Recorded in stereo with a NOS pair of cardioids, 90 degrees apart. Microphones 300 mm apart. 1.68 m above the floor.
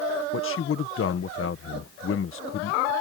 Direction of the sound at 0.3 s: 45° left.